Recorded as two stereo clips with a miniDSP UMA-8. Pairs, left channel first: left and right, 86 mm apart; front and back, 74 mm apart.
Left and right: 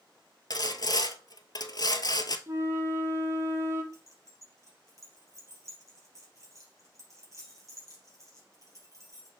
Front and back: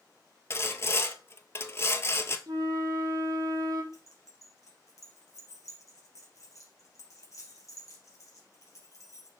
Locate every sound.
0.5 s sawing: 55° left, 0.7 m
2.5 s a flute: 150° right, 1.4 m
3.9 s keys jangling: 40° right, 2.5 m